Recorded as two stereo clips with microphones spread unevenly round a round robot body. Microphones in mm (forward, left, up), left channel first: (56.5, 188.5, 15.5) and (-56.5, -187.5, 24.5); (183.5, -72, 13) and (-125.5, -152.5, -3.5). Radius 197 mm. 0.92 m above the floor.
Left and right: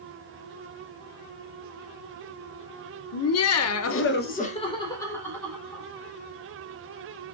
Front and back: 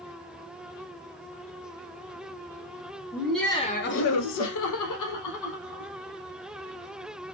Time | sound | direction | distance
3.1 | laughter | 115° left | 0.8 m